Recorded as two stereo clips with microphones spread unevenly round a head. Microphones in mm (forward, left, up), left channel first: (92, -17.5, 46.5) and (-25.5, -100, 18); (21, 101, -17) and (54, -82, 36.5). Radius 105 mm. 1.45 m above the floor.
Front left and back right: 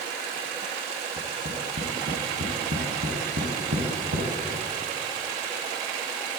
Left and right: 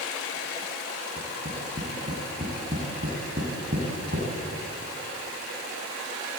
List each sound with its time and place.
1.2 s tapping: 130° right, 5 m